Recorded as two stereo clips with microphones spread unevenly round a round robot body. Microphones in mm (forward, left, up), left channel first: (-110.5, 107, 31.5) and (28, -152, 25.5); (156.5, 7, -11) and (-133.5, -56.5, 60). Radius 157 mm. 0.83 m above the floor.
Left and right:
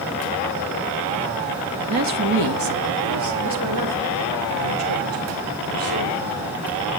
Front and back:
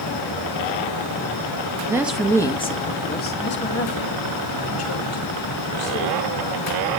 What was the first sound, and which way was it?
A woman speaking, 80° right.